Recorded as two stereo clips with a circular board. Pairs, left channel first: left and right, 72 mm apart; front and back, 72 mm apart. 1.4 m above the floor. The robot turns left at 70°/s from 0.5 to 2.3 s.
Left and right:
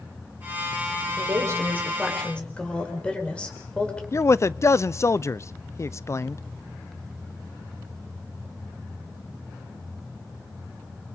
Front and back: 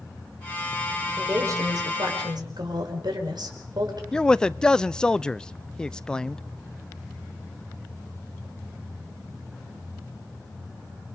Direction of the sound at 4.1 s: 70° left.